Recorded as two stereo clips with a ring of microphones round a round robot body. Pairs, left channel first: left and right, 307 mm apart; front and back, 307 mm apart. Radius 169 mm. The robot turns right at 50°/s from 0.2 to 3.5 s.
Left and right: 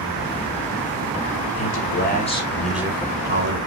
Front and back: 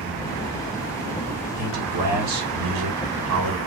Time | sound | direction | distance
1.6 | a man speaking | 125° left | 4 m